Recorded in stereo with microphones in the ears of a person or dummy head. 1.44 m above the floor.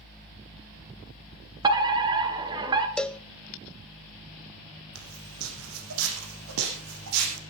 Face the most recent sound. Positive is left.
turn(degrees=-75)  # may be behind; listen again after turning